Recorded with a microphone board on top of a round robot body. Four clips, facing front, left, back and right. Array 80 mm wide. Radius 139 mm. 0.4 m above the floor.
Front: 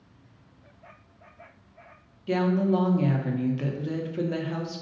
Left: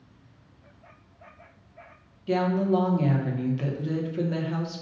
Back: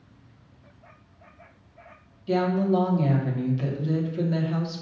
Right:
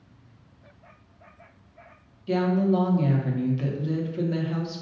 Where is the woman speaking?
20° left, 1.1 m.